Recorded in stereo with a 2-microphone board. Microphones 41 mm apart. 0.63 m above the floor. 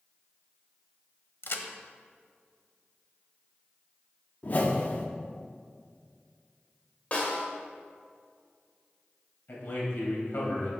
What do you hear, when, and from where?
1.4 s a crack: 70° left (ahead or behind), 0.8 m
4.4 s a whoosh: 40° left (ahead or behind), 0.9 m
7.1 s a snare drum: 35° left (ahead or behind), 1.8 m
9.5 s a man speaking: 65° left (ahead or behind), 3.5 m